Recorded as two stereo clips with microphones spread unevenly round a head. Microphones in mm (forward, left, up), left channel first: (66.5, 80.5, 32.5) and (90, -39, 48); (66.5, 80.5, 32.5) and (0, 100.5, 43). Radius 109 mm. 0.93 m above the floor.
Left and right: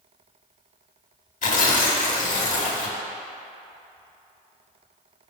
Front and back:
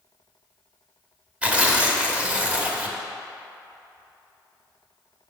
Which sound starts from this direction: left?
Tearing paper, at 1.4 s.